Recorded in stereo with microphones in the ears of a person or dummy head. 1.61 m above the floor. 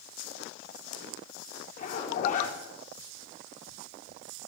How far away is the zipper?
About 5 m.